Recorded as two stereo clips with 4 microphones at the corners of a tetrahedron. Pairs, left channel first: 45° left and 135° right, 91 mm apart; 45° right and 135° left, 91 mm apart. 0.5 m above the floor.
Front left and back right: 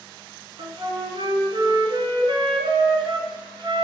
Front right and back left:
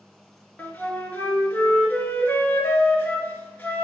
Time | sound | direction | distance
0.6 | a flute | 115° right | 1.3 m